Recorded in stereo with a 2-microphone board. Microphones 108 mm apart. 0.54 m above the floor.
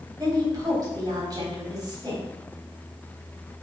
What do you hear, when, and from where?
0.2 s a woman speaking: 40° right (ahead or behind), 4 m